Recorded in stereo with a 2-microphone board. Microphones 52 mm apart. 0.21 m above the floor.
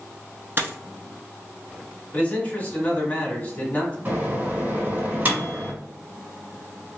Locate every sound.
0.6 s a dropped coin: 45° right (ahead or behind), 0.7 m
2.1 s a man speaking: 30° left (ahead or behind), 1.1 m
4.0 s a microwave: 35° right (ahead or behind), 1.7 m